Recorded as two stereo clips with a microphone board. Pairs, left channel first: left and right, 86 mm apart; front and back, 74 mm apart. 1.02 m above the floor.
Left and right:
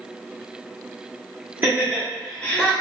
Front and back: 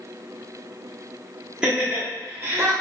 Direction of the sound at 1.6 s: 115° right.